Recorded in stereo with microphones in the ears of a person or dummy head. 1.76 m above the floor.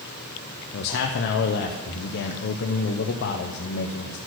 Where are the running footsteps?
No running footsteps in this recording.